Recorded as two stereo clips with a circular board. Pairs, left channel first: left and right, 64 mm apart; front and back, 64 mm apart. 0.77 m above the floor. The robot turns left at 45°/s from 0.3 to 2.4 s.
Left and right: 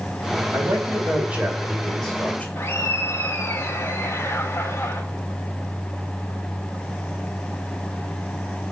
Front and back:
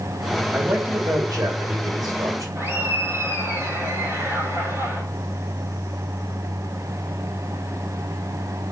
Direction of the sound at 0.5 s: 120° right.